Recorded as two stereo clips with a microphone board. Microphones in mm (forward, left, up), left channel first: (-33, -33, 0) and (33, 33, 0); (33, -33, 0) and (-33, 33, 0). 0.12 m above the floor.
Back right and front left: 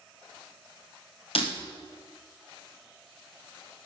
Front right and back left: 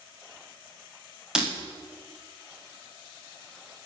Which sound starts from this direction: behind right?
Breaking glass, at 1.4 s.